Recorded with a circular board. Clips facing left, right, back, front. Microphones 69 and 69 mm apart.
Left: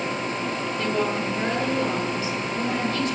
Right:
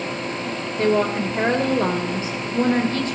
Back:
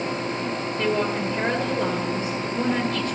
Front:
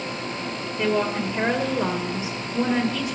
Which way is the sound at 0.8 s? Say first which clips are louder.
Right 7 dB, front 1 dB; 75° right.